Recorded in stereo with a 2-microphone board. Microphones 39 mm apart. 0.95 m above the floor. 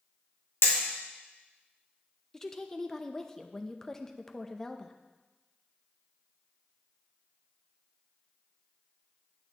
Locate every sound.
0.6 s hammering: 75° left (ahead or behind), 1.6 m
2.3 s a woman speaking: 15° left (ahead or behind), 0.6 m